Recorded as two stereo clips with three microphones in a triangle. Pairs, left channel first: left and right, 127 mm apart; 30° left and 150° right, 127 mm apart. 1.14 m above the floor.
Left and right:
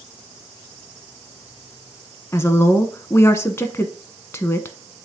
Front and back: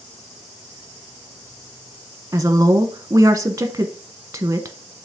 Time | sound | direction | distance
2.3 | a woman speaking | 150° left | 1.0 m